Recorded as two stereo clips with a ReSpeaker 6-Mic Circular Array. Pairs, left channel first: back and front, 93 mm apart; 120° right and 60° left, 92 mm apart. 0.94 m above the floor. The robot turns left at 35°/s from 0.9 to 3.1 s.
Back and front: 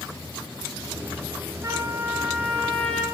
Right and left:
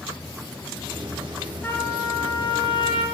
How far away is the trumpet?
About 6 m.